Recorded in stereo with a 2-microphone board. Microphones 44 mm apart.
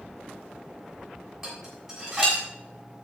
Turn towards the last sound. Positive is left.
turn(degrees=-5)  # may be behind; listen again after turning